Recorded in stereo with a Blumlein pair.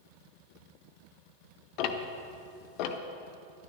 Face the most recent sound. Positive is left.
turn(degrees=40)